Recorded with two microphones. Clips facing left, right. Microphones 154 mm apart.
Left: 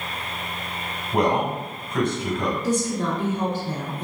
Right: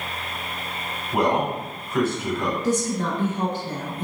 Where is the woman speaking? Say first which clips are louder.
Right 1 dB; 35° right (ahead or behind), 1.4 m.